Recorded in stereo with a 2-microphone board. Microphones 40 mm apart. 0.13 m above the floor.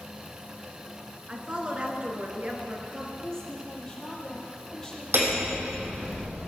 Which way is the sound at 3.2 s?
15° left (ahead or behind).